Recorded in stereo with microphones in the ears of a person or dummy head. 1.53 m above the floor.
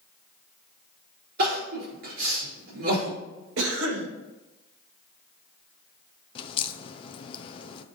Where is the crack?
35° left (ahead or behind), 0.6 m.